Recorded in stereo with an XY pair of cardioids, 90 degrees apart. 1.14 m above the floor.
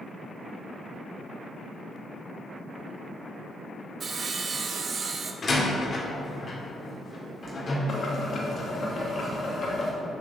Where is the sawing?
50° right, 0.9 m.